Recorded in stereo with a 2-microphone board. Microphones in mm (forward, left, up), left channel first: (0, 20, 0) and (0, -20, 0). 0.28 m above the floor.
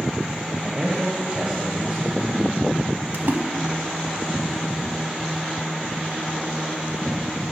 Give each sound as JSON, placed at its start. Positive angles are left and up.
{"t": 0.6, "sound": "a man speaking", "side_deg": -25, "distance_m": 0.9}
{"t": 3.1, "sound": "a splash", "side_deg": -65, "distance_m": 0.6}